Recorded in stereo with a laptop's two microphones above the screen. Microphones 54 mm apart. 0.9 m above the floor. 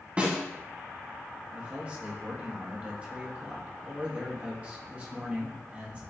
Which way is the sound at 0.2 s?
25° right (ahead or behind).